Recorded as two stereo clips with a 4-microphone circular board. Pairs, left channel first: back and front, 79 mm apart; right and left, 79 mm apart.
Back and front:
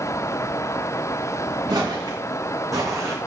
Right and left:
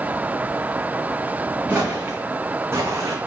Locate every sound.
1.7 s footsteps: 25° left, 3.5 m; by 3.2 s 50° left, 2.5 m